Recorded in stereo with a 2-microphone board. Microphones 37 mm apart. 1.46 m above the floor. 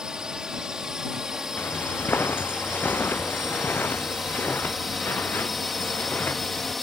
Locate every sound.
0.0 s a drone: 20° right (ahead or behind); by 6.8 s 5° left (ahead or behind)
1.6 s footsteps: 60° left (ahead or behind); by 6.7 s 50° left (ahead or behind)